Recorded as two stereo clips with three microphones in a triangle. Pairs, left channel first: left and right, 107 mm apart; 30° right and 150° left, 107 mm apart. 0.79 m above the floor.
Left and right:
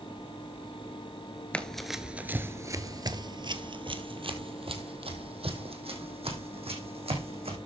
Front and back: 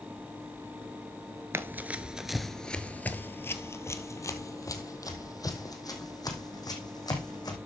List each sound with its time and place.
1.5 s running footsteps: 150° left, 0.8 m; by 7.6 s 80° right, 3 m